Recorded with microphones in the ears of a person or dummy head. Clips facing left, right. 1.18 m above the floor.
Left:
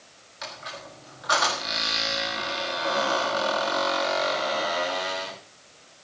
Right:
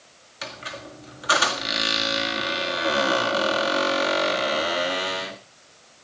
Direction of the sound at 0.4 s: 40° right (ahead or behind).